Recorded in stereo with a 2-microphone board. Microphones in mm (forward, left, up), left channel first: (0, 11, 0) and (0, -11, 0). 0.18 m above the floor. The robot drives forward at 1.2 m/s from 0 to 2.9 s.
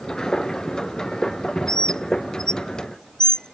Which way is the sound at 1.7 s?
35° left (ahead or behind).